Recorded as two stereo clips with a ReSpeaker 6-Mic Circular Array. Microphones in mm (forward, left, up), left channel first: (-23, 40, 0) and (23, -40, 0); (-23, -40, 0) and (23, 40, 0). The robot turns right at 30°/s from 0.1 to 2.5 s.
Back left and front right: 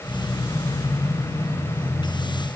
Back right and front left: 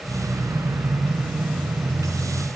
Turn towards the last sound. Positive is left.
No sound to turn to.